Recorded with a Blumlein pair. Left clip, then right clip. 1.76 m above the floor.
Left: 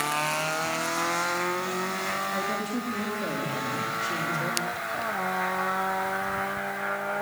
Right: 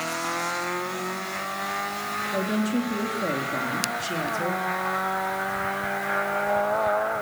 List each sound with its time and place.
2.3 s a woman speaking: 15° right, 4 m